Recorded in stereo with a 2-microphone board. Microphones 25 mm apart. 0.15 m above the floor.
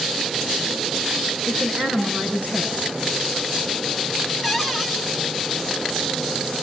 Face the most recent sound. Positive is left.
turn(degrees=-10)  # may be behind; listen again after turning